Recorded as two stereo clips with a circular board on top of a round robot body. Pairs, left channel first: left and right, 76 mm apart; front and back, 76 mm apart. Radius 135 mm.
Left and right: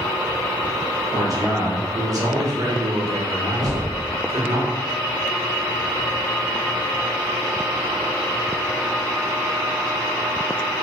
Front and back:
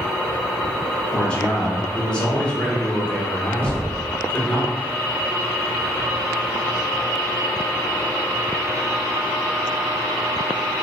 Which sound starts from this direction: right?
A man speaking, at 1.1 s.